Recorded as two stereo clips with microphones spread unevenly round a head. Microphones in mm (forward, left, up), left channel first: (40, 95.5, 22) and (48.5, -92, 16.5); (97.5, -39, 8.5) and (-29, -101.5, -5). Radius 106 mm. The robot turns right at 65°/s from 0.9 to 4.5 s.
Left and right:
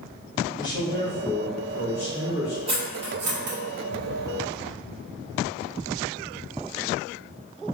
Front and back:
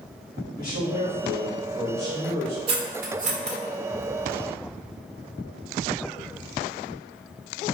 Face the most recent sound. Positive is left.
turn(degrees=-35)